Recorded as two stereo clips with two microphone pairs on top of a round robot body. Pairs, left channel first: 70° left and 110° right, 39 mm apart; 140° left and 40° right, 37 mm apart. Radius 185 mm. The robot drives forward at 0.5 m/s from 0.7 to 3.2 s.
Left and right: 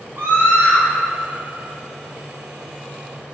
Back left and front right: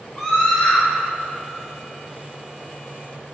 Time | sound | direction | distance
0.2 | a scream | 140° right | 2.5 m